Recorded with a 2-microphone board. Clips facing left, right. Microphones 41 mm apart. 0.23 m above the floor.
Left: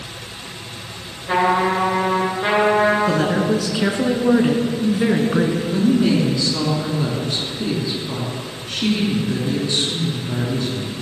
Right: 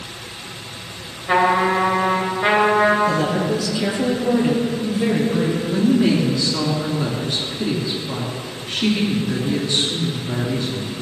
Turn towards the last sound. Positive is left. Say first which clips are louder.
# right 1 dB
turn(degrees=-5)  # may be behind; listen again after turning